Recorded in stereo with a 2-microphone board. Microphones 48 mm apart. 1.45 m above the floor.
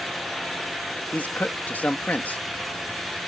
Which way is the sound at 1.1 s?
35° left (ahead or behind).